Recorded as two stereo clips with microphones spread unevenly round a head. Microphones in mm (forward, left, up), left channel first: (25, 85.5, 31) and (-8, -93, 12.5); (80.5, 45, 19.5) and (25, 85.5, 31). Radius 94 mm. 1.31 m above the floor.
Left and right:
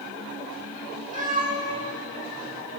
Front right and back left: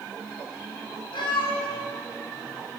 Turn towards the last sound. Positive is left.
turn(degrees=-45)